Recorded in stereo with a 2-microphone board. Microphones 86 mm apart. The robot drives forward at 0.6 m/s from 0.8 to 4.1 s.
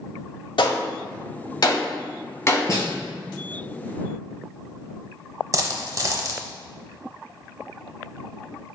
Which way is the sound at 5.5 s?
45° right (ahead or behind).